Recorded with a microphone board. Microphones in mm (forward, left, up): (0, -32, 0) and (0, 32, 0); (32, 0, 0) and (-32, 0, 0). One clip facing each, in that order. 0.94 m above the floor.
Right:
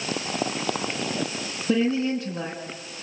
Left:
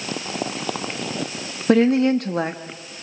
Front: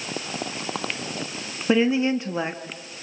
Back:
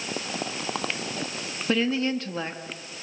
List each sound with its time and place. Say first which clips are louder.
1.7 s a woman speaking: left 7 dB, front 5 dB; 70° left, 1.4 m